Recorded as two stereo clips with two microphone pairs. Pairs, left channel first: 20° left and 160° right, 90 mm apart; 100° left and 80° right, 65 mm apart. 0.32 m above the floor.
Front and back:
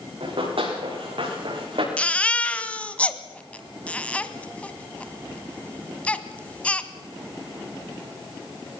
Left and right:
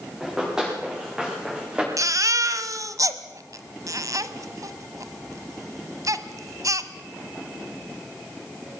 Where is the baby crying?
55° right, 1.1 m.